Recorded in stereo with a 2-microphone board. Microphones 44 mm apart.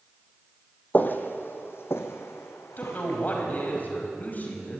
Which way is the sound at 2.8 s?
40° left (ahead or behind).